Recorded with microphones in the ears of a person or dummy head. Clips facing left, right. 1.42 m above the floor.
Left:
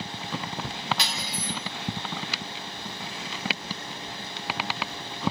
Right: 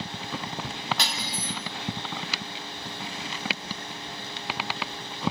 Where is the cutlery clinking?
50° right (ahead or behind), 1.0 m.